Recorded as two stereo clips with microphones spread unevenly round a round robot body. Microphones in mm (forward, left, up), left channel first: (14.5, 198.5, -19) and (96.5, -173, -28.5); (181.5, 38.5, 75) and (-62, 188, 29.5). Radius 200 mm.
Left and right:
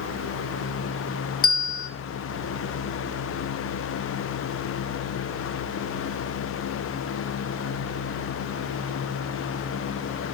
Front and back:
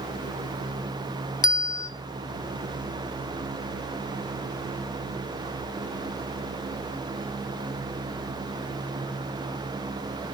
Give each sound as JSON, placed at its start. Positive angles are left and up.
{"t": 1.4, "sound": "a bell", "azimuth_deg": 35, "distance_m": 1.8}